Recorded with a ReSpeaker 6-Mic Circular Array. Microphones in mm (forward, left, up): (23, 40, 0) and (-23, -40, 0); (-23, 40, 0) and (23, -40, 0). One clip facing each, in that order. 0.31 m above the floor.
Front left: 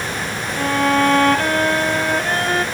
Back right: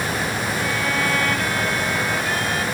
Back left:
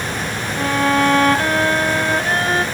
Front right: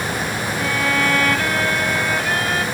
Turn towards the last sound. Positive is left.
turn(degrees=75)